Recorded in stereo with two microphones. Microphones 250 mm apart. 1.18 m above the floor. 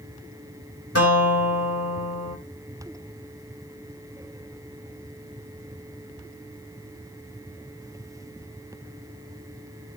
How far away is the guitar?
About 3 m.